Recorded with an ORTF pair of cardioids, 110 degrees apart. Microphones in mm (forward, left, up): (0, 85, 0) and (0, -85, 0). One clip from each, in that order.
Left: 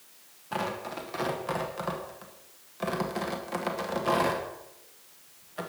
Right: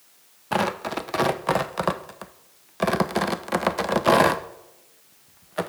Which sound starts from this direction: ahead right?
Tearing paper, at 0.5 s.